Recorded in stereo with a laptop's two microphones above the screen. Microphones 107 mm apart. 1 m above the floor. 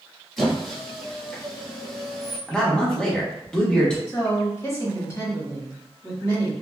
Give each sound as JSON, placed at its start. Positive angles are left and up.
{"t": 0.4, "sound": "a squeak", "side_deg": 0, "distance_m": 1.0}
{"t": 2.5, "sound": "a man speaking", "side_deg": 10, "distance_m": 1.1}
{"t": 4.1, "sound": "a woman speaking", "side_deg": 25, "distance_m": 1.4}